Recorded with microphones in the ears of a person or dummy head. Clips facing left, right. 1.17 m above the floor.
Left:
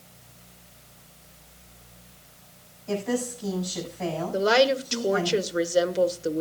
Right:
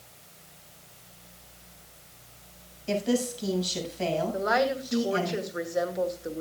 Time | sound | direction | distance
2.9 | a woman speaking | 45° right (ahead or behind) | 7 m
4.3 | a woman speaking | 40° left (ahead or behind) | 1.2 m